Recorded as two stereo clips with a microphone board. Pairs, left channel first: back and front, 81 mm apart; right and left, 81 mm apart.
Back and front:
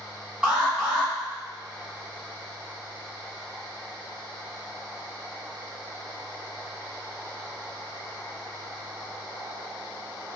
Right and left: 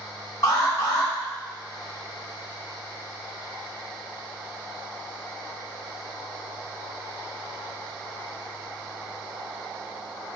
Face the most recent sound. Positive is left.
turn(degrees=-70)